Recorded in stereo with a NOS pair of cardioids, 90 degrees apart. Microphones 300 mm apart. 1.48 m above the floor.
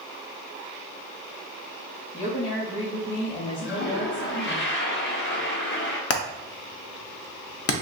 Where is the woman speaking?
25° left, 1.0 m.